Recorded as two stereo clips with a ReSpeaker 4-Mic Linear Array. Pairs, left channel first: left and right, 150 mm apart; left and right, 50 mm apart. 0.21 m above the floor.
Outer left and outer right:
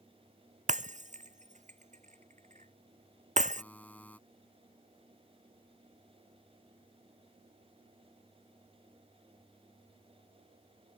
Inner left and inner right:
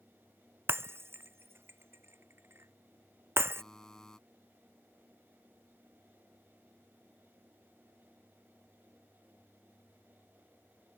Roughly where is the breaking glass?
Right.